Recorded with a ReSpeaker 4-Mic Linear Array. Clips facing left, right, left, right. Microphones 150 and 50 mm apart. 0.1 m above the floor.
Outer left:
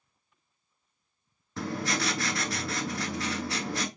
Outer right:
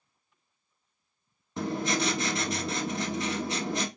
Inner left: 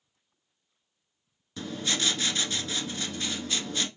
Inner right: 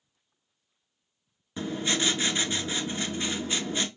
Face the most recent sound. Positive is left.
turn(degrees=-20)  # may be behind; listen again after turning